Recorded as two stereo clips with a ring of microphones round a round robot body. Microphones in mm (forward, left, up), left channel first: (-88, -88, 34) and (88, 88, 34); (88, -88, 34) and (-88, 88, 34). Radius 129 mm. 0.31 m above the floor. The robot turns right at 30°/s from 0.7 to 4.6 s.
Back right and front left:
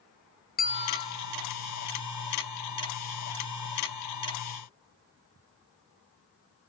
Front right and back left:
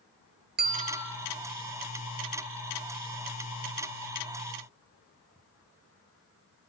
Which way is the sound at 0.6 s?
Straight behind.